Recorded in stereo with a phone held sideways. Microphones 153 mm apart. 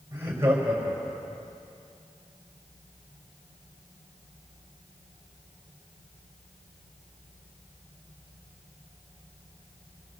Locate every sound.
0.1 s laughter: 20° right (ahead or behind), 4 m; by 1.4 s 5° right (ahead or behind), 4.5 m